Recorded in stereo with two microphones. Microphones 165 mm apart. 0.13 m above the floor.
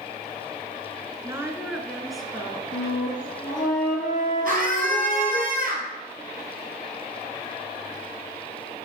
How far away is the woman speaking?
About 1.4 m.